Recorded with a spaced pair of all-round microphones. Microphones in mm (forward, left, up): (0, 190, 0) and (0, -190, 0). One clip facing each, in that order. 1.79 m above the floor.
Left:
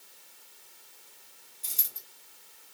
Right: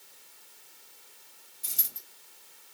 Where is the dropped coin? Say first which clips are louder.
Right 1 dB; 25° right (ahead or behind), 3.5 m.